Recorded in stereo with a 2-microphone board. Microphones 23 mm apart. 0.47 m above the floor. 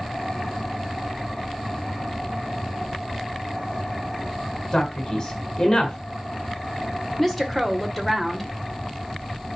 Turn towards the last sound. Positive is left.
turn(degrees=10)  # may be behind; listen again after turning